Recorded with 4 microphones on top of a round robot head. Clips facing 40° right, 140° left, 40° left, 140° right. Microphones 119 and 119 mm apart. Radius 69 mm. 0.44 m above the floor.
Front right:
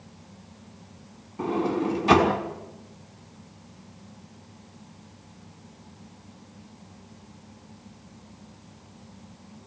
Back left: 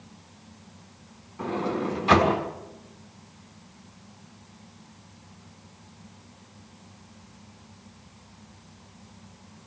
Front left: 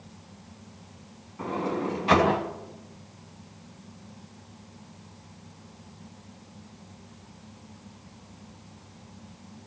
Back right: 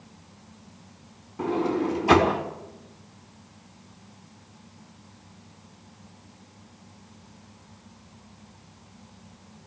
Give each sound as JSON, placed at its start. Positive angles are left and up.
{"t": 1.4, "sound": "a sliding door", "azimuth_deg": -85, "distance_m": 5.0}